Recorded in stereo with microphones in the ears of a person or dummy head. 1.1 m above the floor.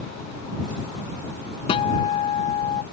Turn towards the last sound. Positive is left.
turn(degrees=35)  # may be behind; listen again after turning